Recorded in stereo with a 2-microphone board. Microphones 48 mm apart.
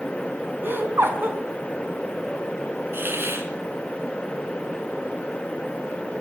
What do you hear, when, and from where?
0.6 s laughter: 45° right (ahead or behind), 4 m
2.9 s a hiss: 50° right (ahead or behind), 2 m